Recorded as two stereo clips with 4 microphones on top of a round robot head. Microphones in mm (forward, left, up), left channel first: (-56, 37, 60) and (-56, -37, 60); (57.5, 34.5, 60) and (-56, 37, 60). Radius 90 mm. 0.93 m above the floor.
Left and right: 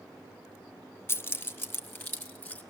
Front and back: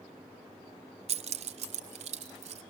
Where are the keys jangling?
150° left, 0.7 m; by 2.6 s 155° left, 1.8 m.